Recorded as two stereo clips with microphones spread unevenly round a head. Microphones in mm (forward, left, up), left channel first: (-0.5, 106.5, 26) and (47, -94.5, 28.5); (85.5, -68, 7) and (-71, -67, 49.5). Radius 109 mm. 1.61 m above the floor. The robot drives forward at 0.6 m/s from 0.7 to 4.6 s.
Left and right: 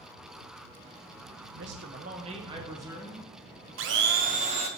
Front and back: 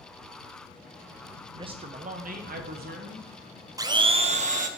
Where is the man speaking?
110° right, 0.6 m; by 3.3 s 160° right, 1.3 m.